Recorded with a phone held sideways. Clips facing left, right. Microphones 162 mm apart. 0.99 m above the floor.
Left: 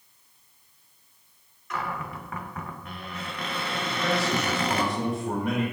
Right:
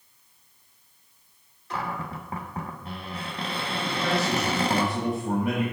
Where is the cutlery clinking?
I don't hear cutlery clinking.